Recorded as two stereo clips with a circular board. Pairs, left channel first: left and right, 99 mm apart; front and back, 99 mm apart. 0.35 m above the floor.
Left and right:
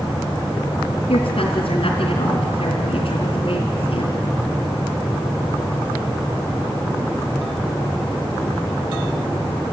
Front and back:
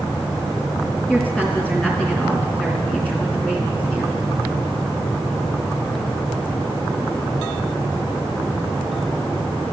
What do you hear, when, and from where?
1.1 s a woman speaking: 75° left, 3.5 m